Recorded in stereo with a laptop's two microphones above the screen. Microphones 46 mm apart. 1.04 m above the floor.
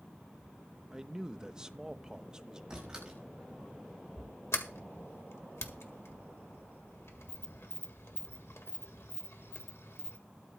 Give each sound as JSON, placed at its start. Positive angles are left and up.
{"t": 0.9, "sound": "a man speaking", "side_deg": -15, "distance_m": 0.9}
{"t": 2.7, "sound": "a door slam", "side_deg": -15, "distance_m": 5.0}
{"t": 4.5, "sound": "a sliding door", "side_deg": 75, "distance_m": 1.7}